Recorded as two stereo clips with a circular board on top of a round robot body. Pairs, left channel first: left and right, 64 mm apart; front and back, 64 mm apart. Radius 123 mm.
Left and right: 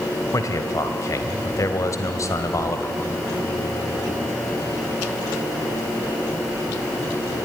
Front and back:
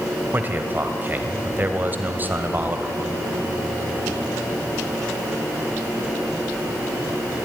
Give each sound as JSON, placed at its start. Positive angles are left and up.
{"t": 0.3, "sound": "a man speaking", "azimuth_deg": 125, "distance_m": 2.0}